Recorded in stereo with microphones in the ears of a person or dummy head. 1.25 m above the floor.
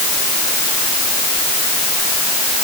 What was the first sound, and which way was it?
Only background noise.